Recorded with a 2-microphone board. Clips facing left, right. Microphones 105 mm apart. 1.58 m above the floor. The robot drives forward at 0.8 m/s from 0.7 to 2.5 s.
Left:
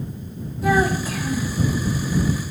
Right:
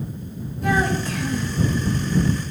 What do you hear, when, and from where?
0.6 s a child speaking: 5° left (ahead or behind), 1.5 m